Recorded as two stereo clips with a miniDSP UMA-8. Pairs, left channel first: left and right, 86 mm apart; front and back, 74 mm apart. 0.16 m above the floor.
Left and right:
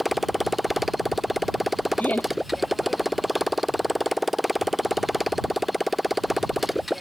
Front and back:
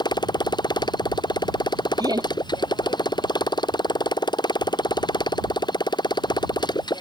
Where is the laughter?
160° left.